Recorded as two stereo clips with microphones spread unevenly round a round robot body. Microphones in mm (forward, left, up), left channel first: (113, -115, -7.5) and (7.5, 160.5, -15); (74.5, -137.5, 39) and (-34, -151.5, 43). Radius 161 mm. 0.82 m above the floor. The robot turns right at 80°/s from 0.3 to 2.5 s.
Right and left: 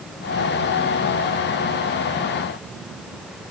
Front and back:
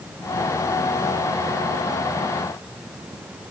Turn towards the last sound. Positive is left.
No sound to turn to.